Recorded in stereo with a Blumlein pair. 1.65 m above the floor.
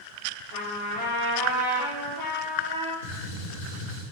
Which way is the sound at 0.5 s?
45° left.